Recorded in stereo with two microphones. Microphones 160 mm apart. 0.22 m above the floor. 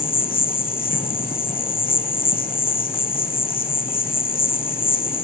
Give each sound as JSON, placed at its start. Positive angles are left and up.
{"t": 0.0, "sound": "an insect", "side_deg": 65, "distance_m": 1.4}